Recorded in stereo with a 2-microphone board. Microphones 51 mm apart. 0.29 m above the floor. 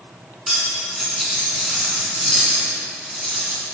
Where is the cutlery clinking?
Centre (ahead or behind), 2 m.